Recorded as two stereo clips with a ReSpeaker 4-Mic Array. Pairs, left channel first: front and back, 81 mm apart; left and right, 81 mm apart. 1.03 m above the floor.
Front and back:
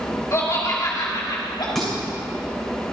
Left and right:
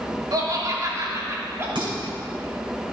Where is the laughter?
55° right, 2.5 m; by 1.6 s 35° right, 2.5 m.